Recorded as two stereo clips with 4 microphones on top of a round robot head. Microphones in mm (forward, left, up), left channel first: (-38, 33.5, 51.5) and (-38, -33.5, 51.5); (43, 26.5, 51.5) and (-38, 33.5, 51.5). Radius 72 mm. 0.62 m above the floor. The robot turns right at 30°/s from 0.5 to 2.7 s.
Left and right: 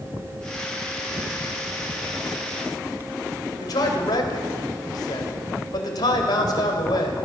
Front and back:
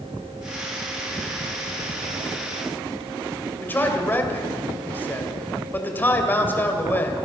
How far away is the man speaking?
About 3 m.